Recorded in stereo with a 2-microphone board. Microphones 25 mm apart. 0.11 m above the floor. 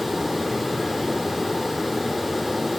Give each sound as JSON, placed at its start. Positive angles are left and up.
{"t": 0.0, "sound": "running water", "side_deg": 0, "distance_m": 1.6}